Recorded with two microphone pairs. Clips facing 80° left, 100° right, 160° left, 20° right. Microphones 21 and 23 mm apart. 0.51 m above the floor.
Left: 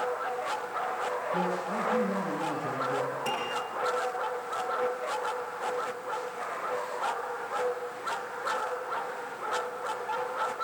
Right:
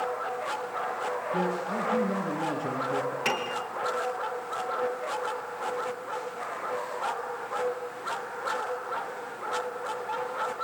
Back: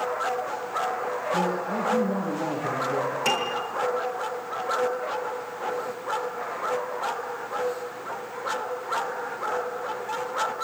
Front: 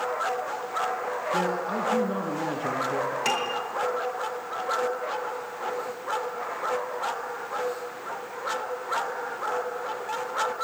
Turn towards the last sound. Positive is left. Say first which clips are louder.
# right 2 dB, back 2 dB
turn(degrees=-95)